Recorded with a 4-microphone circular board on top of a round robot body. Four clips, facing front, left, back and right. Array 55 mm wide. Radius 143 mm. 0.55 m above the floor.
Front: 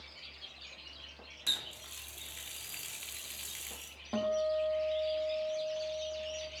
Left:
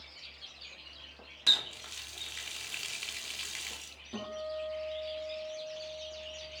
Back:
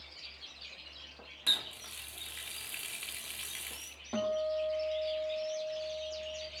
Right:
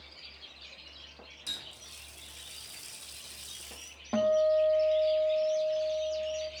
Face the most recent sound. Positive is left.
turn(degrees=-85)